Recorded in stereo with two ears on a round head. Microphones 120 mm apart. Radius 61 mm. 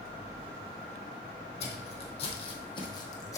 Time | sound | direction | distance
1.6 | footsteps | 50° left (ahead or behind) | 3 m